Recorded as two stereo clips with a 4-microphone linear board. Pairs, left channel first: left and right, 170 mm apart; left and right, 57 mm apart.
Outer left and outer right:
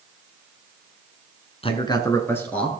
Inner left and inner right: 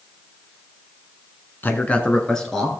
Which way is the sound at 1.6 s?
35° left (ahead or behind).